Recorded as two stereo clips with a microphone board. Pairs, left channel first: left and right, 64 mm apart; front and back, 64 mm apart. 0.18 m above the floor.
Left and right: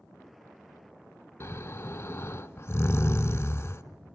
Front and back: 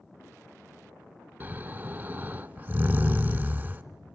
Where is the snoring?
130° left, 0.6 m.